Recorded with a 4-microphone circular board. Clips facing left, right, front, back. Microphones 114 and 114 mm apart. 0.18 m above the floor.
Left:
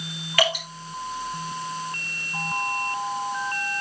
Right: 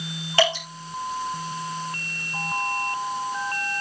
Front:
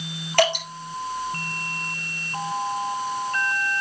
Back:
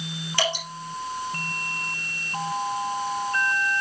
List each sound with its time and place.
0.4 s dripping: 30° right, 5 m